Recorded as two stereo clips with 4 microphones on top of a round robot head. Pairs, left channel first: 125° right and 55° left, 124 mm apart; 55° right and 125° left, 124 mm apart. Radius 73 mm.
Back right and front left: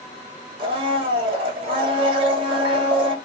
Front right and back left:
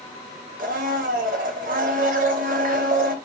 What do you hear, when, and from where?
0.6 s a blender: 105° left, 0.5 m